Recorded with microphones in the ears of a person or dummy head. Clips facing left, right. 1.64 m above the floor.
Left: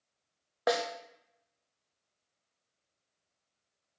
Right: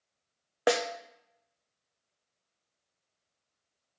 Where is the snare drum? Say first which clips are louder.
Right 3 dB; 40° right (ahead or behind), 0.7 m.